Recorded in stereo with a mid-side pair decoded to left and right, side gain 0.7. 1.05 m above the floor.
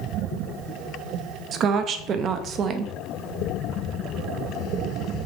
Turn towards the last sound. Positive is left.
turn(degrees=-40)